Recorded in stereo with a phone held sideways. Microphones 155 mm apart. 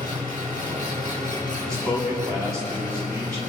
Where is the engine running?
55° right (ahead or behind), 5 m.